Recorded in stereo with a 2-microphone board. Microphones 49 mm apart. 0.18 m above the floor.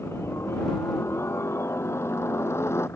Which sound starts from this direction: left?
A helicopter, at 0.0 s.